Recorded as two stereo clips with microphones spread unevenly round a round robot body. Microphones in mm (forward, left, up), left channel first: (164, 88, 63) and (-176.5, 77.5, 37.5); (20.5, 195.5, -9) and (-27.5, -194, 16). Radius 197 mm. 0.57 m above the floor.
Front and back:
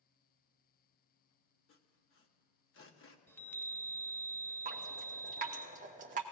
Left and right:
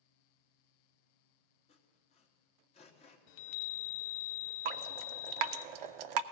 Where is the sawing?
25° left, 1.0 m.